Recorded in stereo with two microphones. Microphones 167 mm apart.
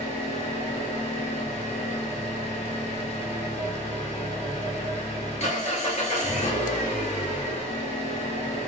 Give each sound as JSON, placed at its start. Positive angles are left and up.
{"t": 0.0, "sound": "an engine running", "side_deg": 45, "distance_m": 1.5}